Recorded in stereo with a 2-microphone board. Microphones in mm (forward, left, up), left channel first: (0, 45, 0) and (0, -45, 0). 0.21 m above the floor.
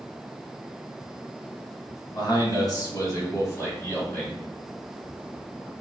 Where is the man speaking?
50° left (ahead or behind), 1.9 m; by 4.4 s 15° left (ahead or behind), 1.4 m.